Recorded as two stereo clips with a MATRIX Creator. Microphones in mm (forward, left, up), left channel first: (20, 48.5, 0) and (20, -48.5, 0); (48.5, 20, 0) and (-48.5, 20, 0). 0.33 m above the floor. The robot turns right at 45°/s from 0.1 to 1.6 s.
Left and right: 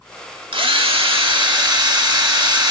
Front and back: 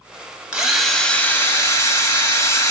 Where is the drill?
100° right, 0.7 m; by 2.7 s 50° right, 0.7 m.